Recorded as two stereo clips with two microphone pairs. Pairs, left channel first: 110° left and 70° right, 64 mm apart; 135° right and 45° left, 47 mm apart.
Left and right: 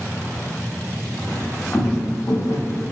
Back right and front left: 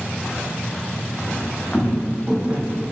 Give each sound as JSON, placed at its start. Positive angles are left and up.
{"t": 1.3, "sound": "footsteps", "azimuth_deg": 160, "distance_m": 1.0}